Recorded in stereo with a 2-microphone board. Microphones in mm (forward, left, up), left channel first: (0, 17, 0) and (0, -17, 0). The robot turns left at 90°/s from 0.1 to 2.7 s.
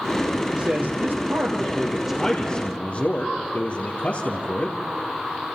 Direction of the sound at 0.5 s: 45° right.